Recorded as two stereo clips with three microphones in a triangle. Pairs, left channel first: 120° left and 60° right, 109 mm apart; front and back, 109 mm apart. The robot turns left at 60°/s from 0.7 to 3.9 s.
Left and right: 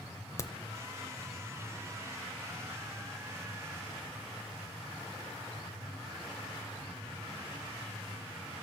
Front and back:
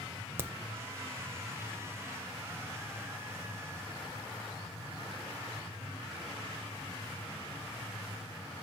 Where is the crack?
145° left, 0.6 m.